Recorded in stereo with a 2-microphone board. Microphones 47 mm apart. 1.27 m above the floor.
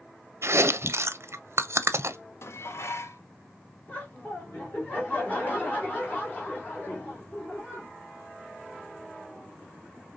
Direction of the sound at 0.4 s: 65° right (ahead or behind).